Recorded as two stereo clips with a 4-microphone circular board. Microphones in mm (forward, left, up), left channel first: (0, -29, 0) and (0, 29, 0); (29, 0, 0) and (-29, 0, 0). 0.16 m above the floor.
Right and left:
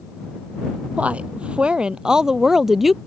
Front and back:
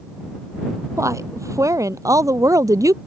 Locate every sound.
1.0 s a woman speaking: 155° left; by 3.0 s 175° left